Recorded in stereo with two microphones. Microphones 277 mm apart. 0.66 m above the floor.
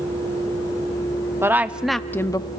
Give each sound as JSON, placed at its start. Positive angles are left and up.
{"t": 1.4, "sound": "a woman speaking", "side_deg": -10, "distance_m": 0.8}